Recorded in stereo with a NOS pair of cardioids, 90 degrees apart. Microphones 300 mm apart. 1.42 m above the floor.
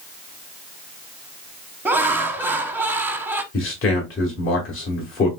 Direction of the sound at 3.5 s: 45° left.